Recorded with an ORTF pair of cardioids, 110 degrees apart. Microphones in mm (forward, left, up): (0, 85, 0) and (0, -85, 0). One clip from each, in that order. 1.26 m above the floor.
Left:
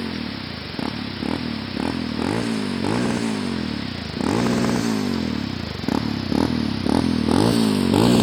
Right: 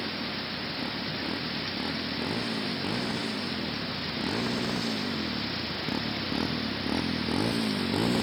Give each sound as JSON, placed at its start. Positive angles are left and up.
{"t": 0.0, "sound": "a motorcycle", "azimuth_deg": 60}